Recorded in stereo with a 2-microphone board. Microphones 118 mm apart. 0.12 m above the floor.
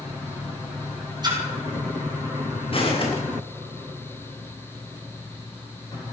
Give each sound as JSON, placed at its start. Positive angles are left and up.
{"t": 1.2, "sound": "a splash", "side_deg": -35, "distance_m": 3.5}
{"t": 2.7, "sound": "footsteps", "side_deg": 50, "distance_m": 5.5}